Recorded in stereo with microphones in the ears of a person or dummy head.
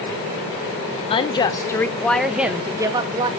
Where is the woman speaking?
30° left (ahead or behind), 1.3 m; by 3.3 s 30° right (ahead or behind), 1.3 m.